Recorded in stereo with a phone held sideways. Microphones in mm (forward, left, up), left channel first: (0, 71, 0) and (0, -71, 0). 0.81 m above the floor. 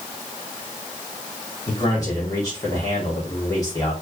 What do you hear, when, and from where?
1.7 s a man speaking: 25° left (ahead or behind), 2 m